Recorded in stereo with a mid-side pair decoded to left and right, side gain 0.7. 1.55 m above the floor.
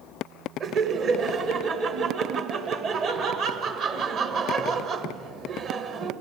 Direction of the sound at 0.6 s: 45° right.